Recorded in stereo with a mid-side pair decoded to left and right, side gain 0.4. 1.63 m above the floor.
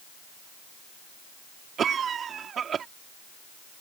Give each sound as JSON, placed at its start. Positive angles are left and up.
{"t": 1.8, "sound": "a cough", "azimuth_deg": -60}